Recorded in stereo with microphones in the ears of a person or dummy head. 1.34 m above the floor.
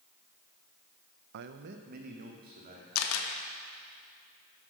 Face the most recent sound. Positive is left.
turn(degrees=80)